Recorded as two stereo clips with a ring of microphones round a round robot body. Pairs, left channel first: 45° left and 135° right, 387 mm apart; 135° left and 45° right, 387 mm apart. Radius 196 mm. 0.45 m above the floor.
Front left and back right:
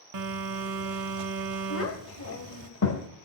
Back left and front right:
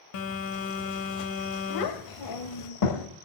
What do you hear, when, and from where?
0.1 s a phone buzzing: straight behind, 1.4 m
1.7 s a child speaking: 100° left, 1.7 m